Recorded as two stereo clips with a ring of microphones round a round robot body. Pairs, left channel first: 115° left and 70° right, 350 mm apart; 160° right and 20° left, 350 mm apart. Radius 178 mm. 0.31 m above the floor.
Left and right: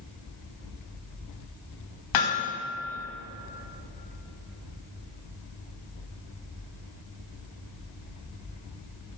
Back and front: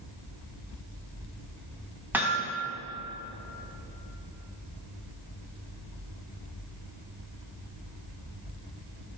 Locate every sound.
2.1 s hammering: 105° left, 1.9 m